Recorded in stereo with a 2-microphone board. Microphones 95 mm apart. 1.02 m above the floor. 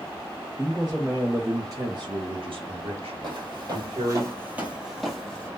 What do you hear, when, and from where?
0.6 s a man speaking: centre (ahead or behind), 0.9 m; by 4.2 s 65° right (ahead or behind), 1.5 m
3.2 s footsteps: 50° right (ahead or behind), 1.6 m; by 5.5 s 10° left (ahead or behind), 1.5 m